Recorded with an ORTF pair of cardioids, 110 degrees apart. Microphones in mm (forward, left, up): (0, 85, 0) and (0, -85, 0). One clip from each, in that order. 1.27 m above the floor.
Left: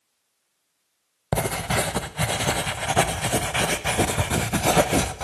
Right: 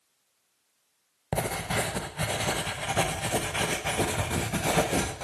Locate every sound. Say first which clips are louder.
1.3 s writing: left 5 dB; 30° left, 0.7 m